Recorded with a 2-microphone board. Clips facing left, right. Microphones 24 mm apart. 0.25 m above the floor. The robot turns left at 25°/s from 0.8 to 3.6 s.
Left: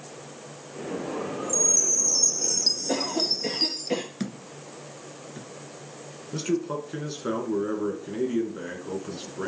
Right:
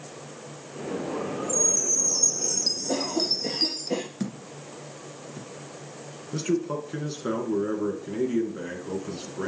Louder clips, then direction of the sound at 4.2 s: Right 1 dB; 30° left (ahead or behind).